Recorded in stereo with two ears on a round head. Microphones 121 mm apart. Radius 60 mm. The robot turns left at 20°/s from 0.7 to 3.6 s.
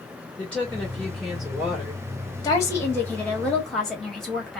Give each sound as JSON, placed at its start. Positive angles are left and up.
{"t": 0.4, "sound": "a woman speaking", "side_deg": 10, "distance_m": 1.2}
{"t": 2.4, "sound": "a woman speaking", "side_deg": 25, "distance_m": 1.3}